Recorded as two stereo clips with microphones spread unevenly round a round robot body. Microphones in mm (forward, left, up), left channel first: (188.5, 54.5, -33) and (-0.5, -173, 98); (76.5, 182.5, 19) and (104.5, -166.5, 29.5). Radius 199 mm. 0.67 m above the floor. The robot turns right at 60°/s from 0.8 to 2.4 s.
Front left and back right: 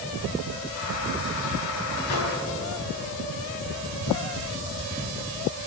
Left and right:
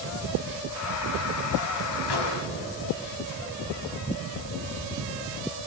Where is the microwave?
85° left, 4 m; by 2.4 s 100° left, 4 m.